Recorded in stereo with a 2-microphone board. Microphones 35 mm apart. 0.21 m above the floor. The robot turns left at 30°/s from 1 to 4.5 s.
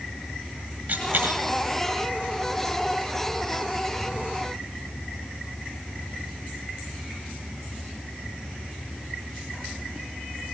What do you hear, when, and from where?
0.9 s a dropped coin: 55° right (ahead or behind), 3 m; by 1.4 s 65° right (ahead or behind), 3 m